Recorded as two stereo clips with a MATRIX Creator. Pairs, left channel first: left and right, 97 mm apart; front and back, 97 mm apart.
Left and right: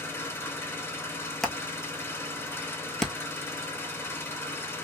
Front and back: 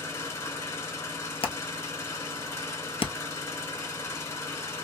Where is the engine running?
45° left, 1.4 m.